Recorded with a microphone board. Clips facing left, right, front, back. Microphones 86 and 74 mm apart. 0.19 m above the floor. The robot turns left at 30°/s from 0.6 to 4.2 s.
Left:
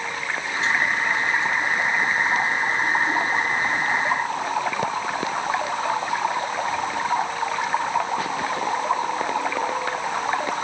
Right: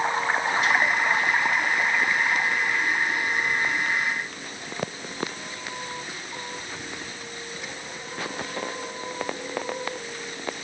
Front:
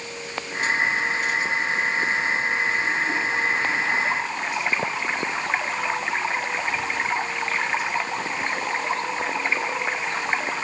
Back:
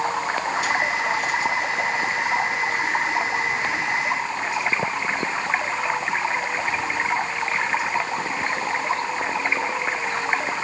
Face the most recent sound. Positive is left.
turn(degrees=100)